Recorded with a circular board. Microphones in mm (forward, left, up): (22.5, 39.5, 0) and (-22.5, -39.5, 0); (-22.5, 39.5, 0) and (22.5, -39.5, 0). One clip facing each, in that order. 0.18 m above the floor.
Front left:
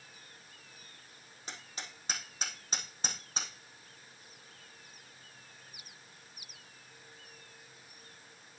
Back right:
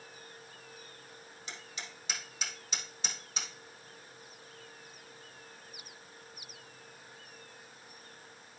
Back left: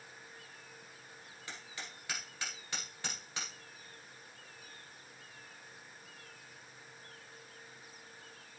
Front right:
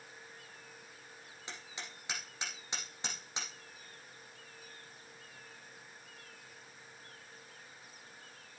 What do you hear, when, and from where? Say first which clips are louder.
1.5 s hammering: front left 1 dB, even; 10° left, 5.5 m